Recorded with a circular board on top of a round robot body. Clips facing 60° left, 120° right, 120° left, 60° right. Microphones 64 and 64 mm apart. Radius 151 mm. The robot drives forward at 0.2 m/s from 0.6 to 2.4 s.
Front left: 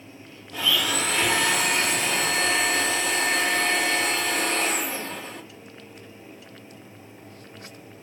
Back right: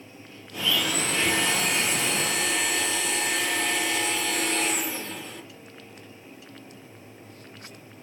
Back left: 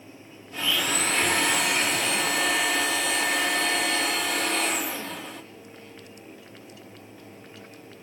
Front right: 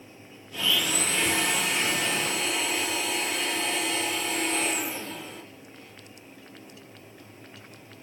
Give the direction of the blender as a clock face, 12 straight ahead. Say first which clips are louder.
Front left 2 dB, back left 1 dB; 10 o'clock.